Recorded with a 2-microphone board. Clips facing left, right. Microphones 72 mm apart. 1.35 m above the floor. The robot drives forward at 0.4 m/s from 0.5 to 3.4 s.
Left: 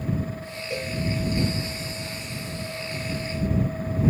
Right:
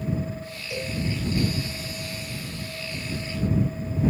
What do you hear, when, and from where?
0.7 s a cowbell: 40° left (ahead or behind), 5.5 m